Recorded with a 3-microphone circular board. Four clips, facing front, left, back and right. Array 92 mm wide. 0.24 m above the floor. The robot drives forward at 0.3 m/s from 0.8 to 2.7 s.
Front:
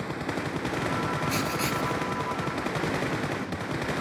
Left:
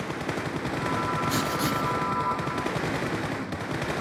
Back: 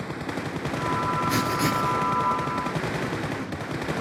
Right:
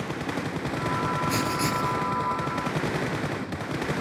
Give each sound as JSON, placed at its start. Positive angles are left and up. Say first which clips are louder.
{"t": 1.3, "sound": "writing", "louder": "even, back 4 dB", "azimuth_deg": 180, "distance_m": 0.6}